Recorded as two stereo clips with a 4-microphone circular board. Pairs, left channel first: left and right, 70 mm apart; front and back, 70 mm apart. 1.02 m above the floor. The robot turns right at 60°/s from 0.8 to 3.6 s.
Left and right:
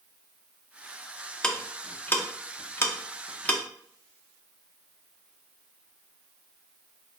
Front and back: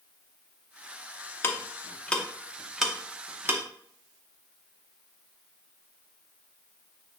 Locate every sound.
1.4 s ticking: 20° left, 0.5 m; by 3.6 s 150° left, 0.5 m